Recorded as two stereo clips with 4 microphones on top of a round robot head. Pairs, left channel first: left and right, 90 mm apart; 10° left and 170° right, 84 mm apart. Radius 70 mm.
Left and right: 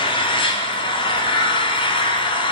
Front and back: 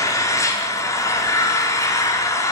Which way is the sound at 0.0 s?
65° left.